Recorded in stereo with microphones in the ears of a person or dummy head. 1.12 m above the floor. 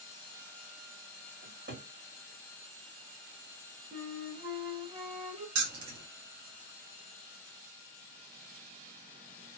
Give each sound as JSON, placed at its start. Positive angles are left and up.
{"t": 1.4, "sound": "a cupboard door", "side_deg": -55, "distance_m": 1.9}
{"t": 3.9, "sound": "a flute", "side_deg": -20, "distance_m": 0.9}
{"t": 5.5, "sound": "keys jangling", "side_deg": -90, "distance_m": 1.3}